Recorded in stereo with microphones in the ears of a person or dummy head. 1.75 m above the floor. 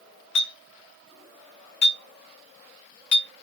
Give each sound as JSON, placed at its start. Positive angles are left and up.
{"t": 0.3, "sound": "a clink", "side_deg": 40, "distance_m": 1.4}